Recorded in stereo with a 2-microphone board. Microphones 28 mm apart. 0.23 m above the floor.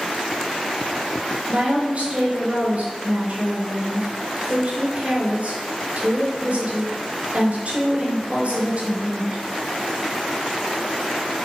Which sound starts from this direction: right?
A woman speaking, at 1.5 s.